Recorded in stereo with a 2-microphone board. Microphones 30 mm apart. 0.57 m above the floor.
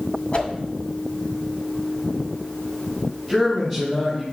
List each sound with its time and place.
0.3 s a whoosh: 45° left (ahead or behind), 2 m
3.3 s a man speaking: 15° left (ahead or behind), 3.5 m